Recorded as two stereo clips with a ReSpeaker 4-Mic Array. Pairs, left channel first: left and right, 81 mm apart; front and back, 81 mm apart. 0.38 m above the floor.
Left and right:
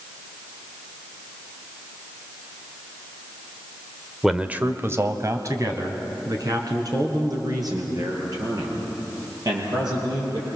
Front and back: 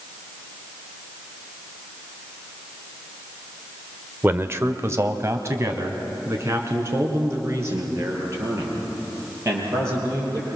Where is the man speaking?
170° right, 1.1 m; by 10.5 s 125° right, 10 m.